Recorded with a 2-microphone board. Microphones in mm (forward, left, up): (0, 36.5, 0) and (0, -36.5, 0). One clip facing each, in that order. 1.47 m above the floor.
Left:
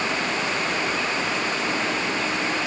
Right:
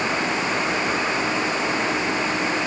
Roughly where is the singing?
No singing in this recording.